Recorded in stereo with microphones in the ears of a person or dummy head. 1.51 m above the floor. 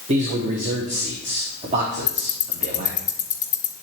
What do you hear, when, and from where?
0.1 s a man speaking: 35° right (ahead or behind), 0.8 m
2.1 s ticking: 15° left (ahead or behind), 2 m